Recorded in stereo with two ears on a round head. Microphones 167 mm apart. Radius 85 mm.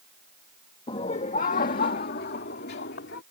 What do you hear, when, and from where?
0.9 s laughter: 30° left (ahead or behind); by 3.2 s 65° left (ahead or behind)